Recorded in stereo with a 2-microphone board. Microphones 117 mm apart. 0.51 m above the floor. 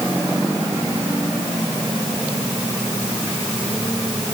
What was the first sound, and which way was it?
Only background noise.